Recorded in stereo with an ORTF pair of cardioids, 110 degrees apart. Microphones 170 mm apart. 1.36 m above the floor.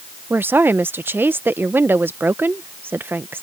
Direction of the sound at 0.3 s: 10° right.